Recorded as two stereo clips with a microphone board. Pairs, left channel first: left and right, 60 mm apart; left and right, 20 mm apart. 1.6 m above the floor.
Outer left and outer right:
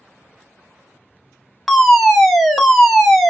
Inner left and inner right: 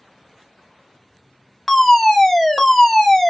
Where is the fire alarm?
5° left (ahead or behind), 0.7 m.